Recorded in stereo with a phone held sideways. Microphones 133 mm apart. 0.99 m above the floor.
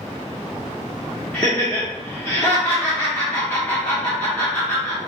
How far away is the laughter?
About 1.1 m.